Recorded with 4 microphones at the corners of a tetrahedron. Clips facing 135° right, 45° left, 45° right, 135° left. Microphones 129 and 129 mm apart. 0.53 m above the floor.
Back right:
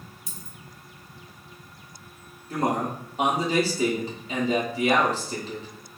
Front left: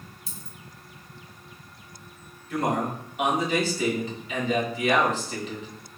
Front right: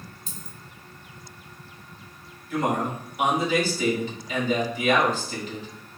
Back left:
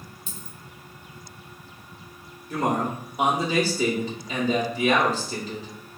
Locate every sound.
0.3 s a dropped coin: 5° right, 0.8 m
2.5 s a man speaking: 175° left, 1.2 m